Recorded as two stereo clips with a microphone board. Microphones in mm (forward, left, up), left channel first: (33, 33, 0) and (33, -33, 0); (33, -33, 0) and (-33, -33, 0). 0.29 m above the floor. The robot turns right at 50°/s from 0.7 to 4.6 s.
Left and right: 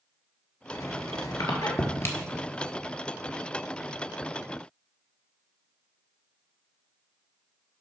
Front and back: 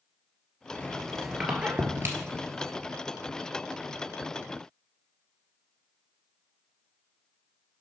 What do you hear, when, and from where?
0.7 s a squeak: 65° left, 1.0 m; by 2.7 s 165° left, 1.0 m